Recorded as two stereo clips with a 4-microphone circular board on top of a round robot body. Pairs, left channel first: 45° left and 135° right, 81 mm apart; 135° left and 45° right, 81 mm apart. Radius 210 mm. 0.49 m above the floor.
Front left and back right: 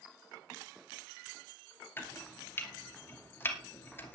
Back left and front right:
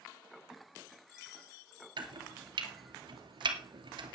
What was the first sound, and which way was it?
Chopping, 20° right.